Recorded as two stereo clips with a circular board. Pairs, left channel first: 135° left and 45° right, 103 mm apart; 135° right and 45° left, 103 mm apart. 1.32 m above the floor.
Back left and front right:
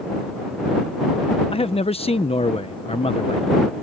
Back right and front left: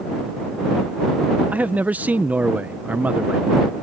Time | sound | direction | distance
1.5 | a man speaking | 120° left | ?